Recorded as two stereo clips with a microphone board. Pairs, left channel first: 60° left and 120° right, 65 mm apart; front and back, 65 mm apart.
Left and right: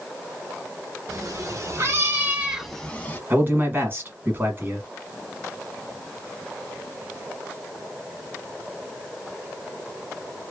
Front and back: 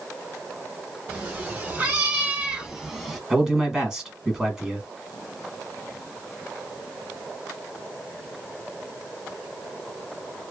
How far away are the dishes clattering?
No dishes clattering in this recording.